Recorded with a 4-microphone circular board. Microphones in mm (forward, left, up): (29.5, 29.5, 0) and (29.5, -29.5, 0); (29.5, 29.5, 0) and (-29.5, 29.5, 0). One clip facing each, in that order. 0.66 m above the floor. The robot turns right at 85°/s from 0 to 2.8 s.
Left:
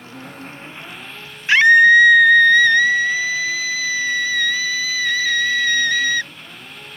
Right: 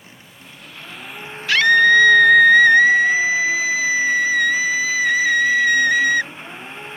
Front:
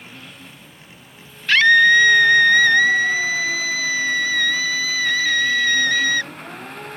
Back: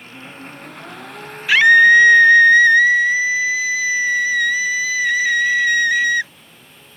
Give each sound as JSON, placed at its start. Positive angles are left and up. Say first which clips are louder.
{"t": 0.0, "sound": "an engine running", "louder": "left 9 dB, back 4 dB", "azimuth_deg": 95}
{"t": 1.5, "sound": "a scream", "louder": "left 3 dB, back 3 dB", "azimuth_deg": 115}